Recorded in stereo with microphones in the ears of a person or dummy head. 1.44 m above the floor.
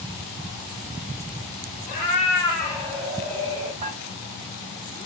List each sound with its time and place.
1.9 s a cat meowing: 35° left (ahead or behind), 1.2 m; by 3.7 s 15° right (ahead or behind), 1.3 m
3.8 s dishes clattering: 45° right (ahead or behind), 1.4 m